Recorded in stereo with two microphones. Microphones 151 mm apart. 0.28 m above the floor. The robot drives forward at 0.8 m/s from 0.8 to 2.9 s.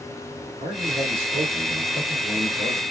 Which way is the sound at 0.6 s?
40° right (ahead or behind).